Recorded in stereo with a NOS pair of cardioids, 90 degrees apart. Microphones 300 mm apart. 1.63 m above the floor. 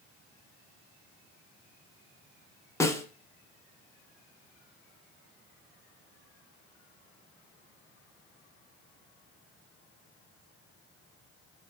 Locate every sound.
2.8 s a snare drum: 10° left, 0.6 m